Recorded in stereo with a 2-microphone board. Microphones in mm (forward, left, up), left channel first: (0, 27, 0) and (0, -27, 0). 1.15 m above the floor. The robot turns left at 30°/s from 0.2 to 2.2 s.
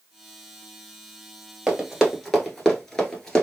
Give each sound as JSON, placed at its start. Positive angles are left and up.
{"t": 1.7, "sound": "running footsteps", "side_deg": -15, "distance_m": 1.3}